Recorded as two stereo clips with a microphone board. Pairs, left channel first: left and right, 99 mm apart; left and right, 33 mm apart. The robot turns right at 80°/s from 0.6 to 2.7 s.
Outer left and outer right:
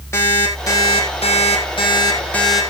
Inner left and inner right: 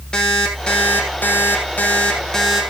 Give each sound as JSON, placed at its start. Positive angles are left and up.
{"t": 0.1, "sound": "an alarm clock", "azimuth_deg": 25, "distance_m": 4.0}